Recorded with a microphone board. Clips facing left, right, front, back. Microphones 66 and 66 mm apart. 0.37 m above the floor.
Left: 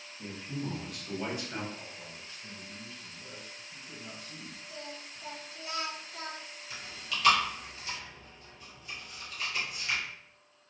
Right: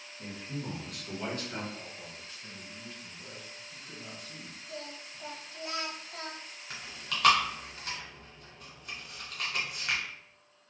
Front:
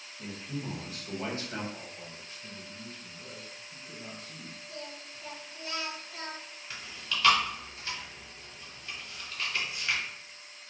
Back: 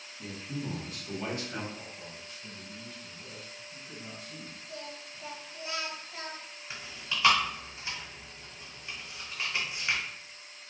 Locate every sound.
0.2 s a man speaking: 25° right, 1.5 m; by 1.6 s 30° left, 1.2 m
1.7 s a man speaking: 30° right, 1.8 m
4.7 s singing: 110° right, 0.7 m
6.7 s chewing: 110° right, 0.8 m